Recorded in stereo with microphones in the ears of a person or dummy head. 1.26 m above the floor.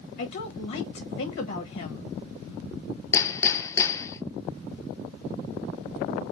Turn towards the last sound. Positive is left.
turn(degrees=15)  # may be behind; listen again after turning